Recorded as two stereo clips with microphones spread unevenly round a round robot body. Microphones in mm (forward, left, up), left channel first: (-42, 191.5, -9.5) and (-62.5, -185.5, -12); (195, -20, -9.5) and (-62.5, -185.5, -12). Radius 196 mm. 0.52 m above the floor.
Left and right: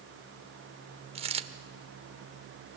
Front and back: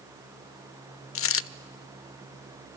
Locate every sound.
1.1 s a dropped coin: 20° right, 0.5 m